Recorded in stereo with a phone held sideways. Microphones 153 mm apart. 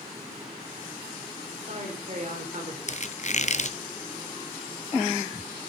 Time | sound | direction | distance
1.5 | a man speaking | 50° right (ahead or behind) | 4 m
2.9 | a squeak | 50° left (ahead or behind) | 0.7 m